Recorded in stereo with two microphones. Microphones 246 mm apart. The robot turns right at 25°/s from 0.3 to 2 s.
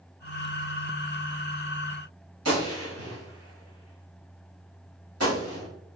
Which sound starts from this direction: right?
A gunshot, at 2.5 s.